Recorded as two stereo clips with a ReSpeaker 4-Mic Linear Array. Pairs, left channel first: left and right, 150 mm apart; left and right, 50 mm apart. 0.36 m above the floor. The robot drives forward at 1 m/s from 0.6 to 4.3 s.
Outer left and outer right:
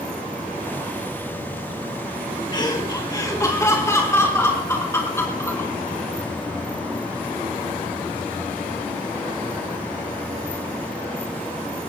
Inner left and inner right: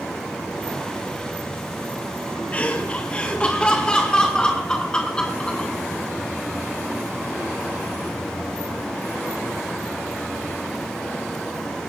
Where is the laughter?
30° left (ahead or behind), 2.5 m; by 5.7 s 20° left (ahead or behind), 4 m.